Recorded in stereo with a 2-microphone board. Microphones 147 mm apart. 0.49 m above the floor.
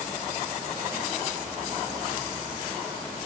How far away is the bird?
No bird in this recording.